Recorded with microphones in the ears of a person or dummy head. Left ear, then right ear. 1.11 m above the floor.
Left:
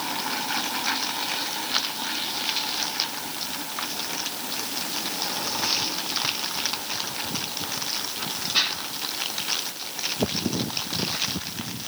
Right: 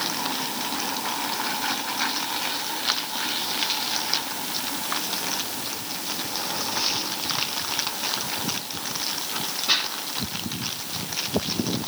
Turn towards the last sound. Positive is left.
No sound to turn to.